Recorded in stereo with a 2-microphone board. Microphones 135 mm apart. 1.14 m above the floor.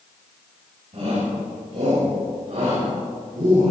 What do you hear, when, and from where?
0.9 s a shout: 60° right (ahead or behind), 7 m; by 3.7 s 70° right (ahead or behind), 6 m